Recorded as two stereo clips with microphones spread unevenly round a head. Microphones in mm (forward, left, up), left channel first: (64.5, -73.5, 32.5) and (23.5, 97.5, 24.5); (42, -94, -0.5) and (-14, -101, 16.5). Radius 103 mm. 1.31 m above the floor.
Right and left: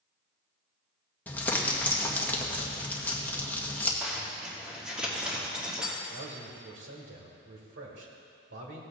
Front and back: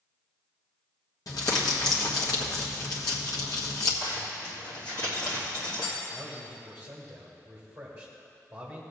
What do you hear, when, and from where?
1.3 s crumpling: 5° left, 1.3 m
4.0 s a zipper: 20° left, 2 m
6.1 s a man speaking: 110° left, 1.9 m